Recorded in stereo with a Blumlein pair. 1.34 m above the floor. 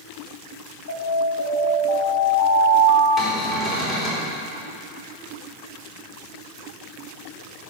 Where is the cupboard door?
25° left, 3.5 m.